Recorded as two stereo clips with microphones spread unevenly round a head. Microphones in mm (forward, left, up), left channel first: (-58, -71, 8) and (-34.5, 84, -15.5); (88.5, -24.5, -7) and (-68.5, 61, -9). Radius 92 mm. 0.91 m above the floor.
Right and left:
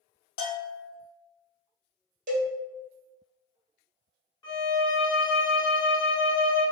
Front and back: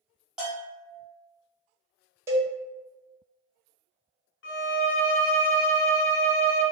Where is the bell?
125° right, 1.1 m.